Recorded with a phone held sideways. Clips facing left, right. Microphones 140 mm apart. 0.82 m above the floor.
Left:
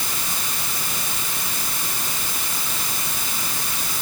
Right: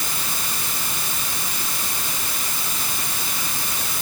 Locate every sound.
Only background noise.